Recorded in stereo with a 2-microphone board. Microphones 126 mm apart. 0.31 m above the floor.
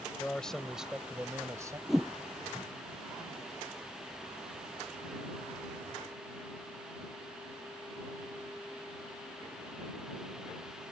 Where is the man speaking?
15° left (ahead or behind); by 1.8 s 30° right (ahead or behind).